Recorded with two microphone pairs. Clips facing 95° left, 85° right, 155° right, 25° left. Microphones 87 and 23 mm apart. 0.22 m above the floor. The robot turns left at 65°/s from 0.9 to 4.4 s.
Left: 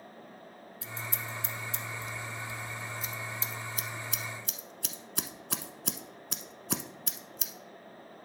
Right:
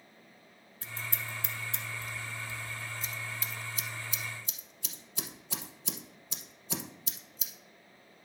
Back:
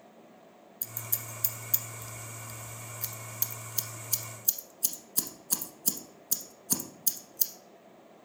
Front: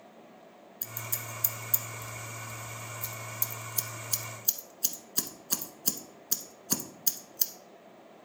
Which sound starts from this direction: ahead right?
Scissors, at 0.8 s.